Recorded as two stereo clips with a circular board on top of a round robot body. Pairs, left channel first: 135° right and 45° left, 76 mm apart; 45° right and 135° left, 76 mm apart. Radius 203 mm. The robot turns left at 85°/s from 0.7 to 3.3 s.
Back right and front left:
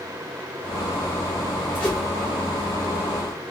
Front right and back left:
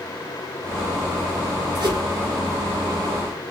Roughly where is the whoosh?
Behind left.